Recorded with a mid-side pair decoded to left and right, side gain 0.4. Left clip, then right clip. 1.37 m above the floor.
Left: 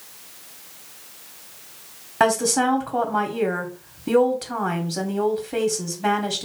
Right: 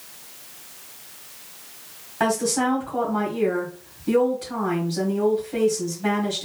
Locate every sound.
2.2 s a woman speaking: 60° left, 1.5 m